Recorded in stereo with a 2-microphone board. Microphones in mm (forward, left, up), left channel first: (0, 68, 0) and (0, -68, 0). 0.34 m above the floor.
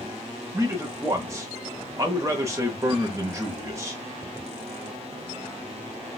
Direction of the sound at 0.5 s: 20° right (ahead or behind).